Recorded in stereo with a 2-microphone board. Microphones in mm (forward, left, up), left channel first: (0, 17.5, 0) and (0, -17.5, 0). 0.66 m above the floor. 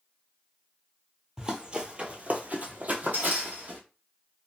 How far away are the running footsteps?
About 0.8 m.